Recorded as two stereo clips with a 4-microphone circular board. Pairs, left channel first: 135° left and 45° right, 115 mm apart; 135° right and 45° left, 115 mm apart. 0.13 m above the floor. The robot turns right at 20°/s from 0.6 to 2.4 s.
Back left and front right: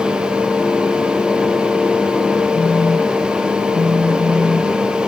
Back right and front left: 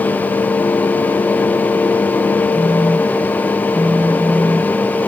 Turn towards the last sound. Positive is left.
turn(degrees=120)